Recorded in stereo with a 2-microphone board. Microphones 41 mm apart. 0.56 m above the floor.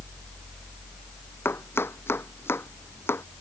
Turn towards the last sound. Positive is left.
turn(degrees=65)  # may be behind; listen again after turning